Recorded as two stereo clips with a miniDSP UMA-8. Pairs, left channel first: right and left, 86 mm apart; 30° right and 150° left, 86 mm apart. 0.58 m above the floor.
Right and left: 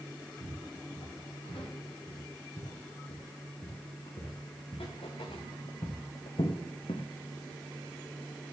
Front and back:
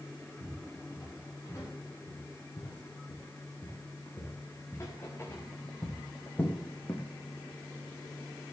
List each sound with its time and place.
0.4 s footsteps: 85° right, 7 m; by 7.1 s 100° right, 1.9 m